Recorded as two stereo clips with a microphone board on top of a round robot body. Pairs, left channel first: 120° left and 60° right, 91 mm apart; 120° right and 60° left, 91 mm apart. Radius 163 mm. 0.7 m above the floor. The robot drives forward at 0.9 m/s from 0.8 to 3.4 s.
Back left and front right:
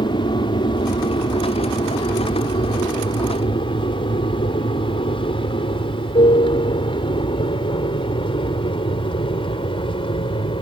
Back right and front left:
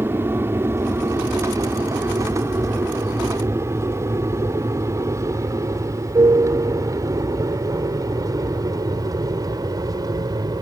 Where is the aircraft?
120° left; by 10.6 s 105° left.